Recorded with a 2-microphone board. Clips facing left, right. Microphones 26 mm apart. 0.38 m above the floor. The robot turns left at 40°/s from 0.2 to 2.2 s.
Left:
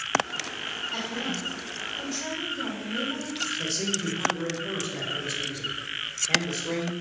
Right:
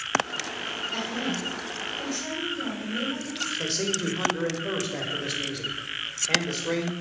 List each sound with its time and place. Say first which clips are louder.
0.9 s a woman speaking: right 1 dB; 140° right, 2 m; by 3.5 s 170° left, 2 m
3.6 s a man speaking: right 1 dB; 35° right (ahead or behind), 1.2 m